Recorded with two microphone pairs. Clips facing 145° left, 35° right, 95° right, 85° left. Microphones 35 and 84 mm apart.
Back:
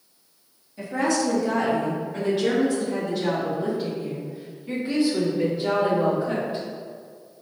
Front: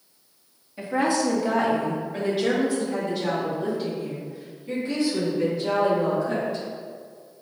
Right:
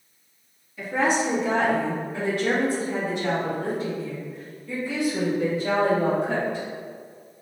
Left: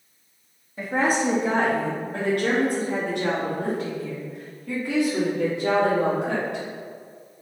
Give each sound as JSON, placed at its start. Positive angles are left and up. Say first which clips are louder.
{"t": 0.8, "sound": "a woman speaking", "louder": "front 1 dB, even", "azimuth_deg": 35, "distance_m": 3.0}